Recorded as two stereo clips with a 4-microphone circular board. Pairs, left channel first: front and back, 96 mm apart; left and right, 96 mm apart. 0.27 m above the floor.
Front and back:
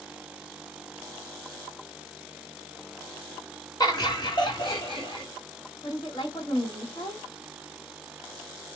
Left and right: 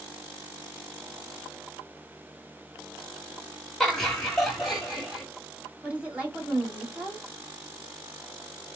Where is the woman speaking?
20° right, 1.8 m.